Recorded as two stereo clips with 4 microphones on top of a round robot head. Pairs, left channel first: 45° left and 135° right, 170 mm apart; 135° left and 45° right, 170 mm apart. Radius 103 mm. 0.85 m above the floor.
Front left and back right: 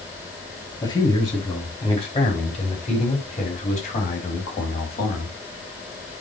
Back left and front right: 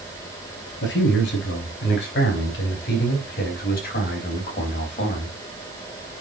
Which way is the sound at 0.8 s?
115° left.